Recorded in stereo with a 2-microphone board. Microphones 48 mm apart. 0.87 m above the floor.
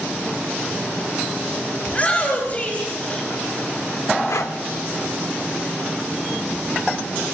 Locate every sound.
1.9 s a shout: 30° left (ahead or behind), 5.5 m
4.3 s breathing: 80° left, 1.0 m